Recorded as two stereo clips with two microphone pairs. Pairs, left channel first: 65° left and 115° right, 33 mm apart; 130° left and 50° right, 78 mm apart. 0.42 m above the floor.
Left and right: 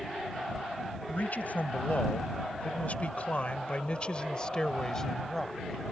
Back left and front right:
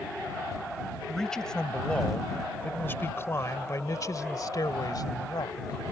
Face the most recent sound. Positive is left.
turn(degrees=140)